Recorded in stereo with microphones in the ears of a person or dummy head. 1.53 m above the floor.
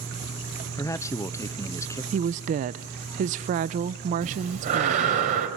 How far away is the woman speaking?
About 0.6 m.